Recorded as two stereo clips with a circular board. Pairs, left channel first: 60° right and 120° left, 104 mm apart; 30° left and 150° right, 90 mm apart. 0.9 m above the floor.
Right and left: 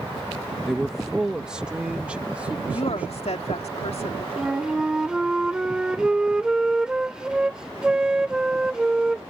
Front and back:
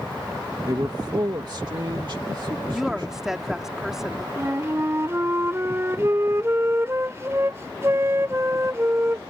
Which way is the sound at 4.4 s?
165° right.